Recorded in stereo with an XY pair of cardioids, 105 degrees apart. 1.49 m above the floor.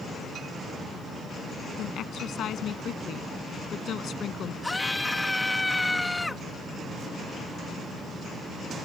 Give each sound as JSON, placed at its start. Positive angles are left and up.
{"t": 1.8, "sound": "a woman speaking", "azimuth_deg": 65}
{"t": 4.6, "sound": "a scream", "azimuth_deg": 15}